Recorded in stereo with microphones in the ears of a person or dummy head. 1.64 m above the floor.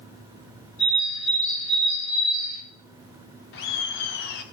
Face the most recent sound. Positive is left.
turn(degrees=60)  # may be behind; listen again after turning